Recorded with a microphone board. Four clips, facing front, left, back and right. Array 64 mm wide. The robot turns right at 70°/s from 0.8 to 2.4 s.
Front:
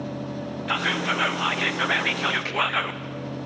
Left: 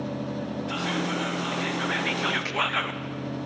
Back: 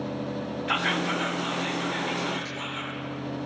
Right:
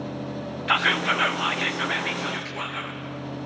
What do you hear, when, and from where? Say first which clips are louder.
0.7 s whispering: right 8 dB, front 2 dB; 85° right, 0.6 m; by 3.0 s 25° left, 0.6 m